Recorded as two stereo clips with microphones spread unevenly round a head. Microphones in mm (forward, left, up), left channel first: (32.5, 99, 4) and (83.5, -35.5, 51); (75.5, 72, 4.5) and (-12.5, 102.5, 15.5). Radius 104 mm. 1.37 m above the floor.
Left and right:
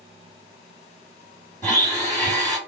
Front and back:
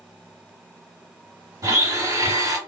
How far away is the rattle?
I don't hear a rattle.